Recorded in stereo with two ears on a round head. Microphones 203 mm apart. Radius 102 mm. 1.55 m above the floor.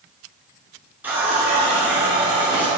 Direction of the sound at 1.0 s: 10° right (ahead or behind).